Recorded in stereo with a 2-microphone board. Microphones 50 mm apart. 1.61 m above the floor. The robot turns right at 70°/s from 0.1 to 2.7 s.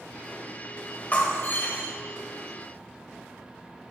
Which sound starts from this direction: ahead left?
Breaking glass, at 1.1 s.